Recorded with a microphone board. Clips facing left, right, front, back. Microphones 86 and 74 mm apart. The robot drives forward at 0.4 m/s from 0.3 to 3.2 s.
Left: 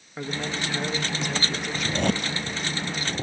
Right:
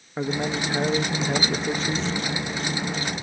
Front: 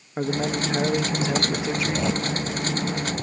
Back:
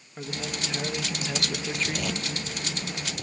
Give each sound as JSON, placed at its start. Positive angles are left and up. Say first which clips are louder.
{"t": 0.2, "sound": "a man speaking", "louder": "right 5 dB, front 10 dB", "azimuth_deg": -30}
{"t": 1.8, "sound": "a zipper", "louder": "left 1 dB, front 6 dB", "azimuth_deg": 60}